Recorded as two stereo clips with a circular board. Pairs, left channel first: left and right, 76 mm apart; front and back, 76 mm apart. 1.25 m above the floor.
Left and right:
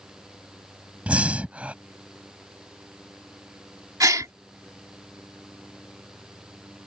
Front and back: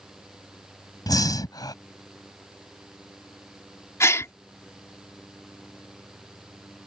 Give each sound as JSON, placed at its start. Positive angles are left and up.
{"t": 1.1, "sound": "breathing", "azimuth_deg": -20}
{"t": 4.0, "sound": "a gasp", "azimuth_deg": -50}